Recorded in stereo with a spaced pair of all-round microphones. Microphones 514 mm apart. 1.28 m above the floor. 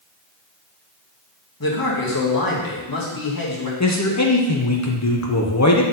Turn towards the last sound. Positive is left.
turn(degrees=30)  # may be behind; listen again after turning